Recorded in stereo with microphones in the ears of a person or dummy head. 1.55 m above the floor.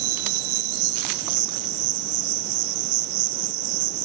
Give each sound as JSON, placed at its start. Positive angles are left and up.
{"t": 0.0, "sound": "an insect", "side_deg": -65, "distance_m": 0.8}